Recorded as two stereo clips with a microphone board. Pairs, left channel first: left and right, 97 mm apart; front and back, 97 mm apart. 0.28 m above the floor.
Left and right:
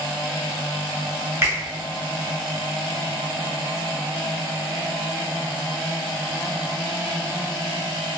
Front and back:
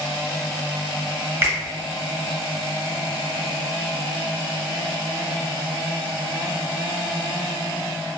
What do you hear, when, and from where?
1.4 s a finger snap: 135° right, 0.9 m